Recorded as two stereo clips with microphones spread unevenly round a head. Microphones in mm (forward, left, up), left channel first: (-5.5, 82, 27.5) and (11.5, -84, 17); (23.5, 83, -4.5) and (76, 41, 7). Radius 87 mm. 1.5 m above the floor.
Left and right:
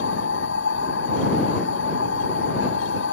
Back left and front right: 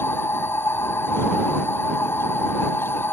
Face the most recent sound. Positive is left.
turn(degrees=85)